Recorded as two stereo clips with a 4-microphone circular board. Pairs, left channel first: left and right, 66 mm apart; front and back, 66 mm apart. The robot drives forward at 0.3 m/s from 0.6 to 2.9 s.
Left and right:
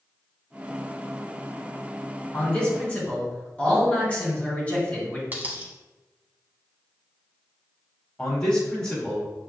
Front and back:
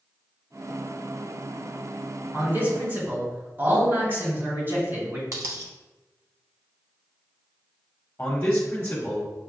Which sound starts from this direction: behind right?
A dropped coin, at 5.3 s.